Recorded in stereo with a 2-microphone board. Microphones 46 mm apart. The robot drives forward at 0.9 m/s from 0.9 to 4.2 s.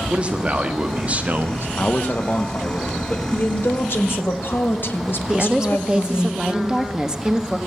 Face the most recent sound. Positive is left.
turn(degrees=-15)  # may be behind; listen again after turning